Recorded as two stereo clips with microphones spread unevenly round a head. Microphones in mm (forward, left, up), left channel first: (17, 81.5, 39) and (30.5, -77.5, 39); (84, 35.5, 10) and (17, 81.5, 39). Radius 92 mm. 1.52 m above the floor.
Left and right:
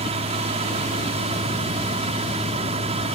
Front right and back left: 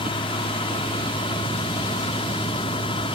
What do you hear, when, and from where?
0.0 s a fan: 35° right